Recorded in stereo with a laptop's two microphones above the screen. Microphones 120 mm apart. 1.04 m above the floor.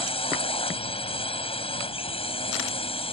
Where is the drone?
50° left (ahead or behind).